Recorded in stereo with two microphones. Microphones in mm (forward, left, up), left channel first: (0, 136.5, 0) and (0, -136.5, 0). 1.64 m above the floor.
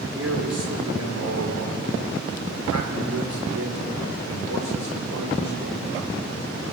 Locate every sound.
0.1 s a man speaking: 55° right (ahead or behind), 5 m; by 6.1 s 75° right (ahead or behind), 7 m